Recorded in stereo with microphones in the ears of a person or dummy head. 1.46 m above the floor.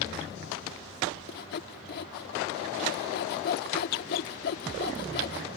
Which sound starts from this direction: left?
Sawing, at 1.3 s.